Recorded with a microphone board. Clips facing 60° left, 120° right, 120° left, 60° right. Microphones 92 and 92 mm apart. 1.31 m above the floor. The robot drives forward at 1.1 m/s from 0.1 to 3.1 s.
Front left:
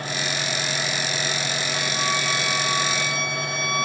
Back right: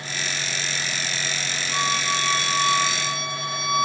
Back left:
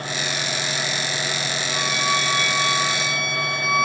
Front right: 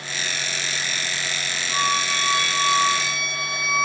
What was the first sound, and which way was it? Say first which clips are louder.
A violin: back right 3 dB, front right 1 dB; 90° right.